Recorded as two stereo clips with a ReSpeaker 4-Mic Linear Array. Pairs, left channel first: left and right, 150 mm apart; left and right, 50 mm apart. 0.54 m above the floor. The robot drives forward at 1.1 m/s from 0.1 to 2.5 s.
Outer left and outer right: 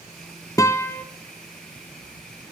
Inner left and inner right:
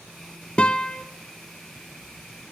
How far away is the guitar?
About 0.7 m.